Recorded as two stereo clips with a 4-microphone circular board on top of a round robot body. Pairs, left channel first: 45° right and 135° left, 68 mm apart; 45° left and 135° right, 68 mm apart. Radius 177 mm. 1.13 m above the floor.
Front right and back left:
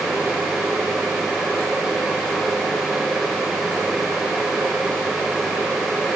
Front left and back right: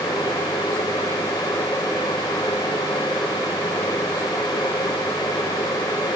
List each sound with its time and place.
Only background noise.